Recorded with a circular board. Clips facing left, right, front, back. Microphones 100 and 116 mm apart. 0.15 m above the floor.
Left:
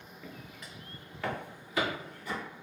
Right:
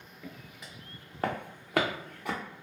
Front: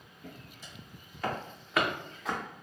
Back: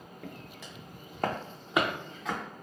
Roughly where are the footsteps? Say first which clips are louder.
Right 1 dB, back 3 dB; behind.